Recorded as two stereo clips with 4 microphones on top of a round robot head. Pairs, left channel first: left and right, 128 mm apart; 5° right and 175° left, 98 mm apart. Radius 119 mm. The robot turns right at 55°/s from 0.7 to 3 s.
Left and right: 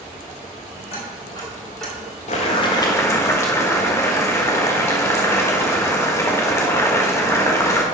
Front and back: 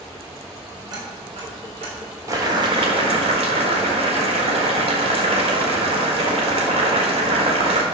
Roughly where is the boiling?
Behind left.